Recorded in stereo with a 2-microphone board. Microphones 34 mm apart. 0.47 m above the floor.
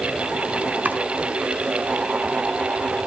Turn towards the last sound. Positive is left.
turn(degrees=-50)  # may be behind; listen again after turning